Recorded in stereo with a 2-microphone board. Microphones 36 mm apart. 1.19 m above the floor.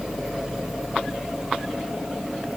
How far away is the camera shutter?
No camera shutter in this recording.